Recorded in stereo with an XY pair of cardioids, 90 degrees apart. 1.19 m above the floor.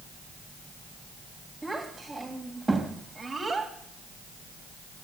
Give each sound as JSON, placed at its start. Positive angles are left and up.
{"t": 1.6, "sound": "a child speaking", "azimuth_deg": -10, "distance_m": 4.0}